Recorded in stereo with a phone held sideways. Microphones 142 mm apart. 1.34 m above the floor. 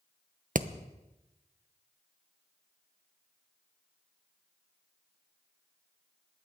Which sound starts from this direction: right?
Hammering, at 0.6 s.